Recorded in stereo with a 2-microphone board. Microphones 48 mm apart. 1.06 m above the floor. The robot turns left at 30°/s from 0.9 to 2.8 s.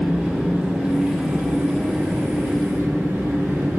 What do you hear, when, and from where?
0.0 s an engine running: 20° right, 1.7 m; by 3.8 s 75° right, 1.7 m